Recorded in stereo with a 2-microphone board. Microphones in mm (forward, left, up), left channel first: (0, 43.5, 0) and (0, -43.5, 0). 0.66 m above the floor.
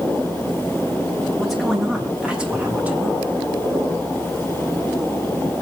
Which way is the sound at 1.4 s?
Centre (ahead or behind).